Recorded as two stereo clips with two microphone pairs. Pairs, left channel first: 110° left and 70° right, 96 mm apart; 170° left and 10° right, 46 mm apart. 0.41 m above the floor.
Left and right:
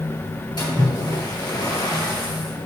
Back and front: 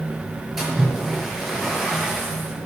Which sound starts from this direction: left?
A splash, at 0.6 s.